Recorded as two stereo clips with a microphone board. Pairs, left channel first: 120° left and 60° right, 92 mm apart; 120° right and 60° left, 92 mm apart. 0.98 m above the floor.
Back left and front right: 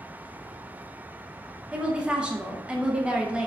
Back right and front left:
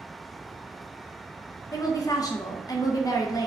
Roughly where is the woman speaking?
Behind right.